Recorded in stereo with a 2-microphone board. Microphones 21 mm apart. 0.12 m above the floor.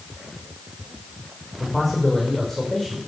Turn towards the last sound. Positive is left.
turn(degrees=5)  # may be behind; listen again after turning